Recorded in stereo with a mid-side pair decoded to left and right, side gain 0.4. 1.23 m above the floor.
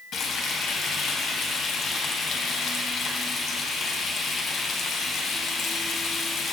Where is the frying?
65° left, 3 m.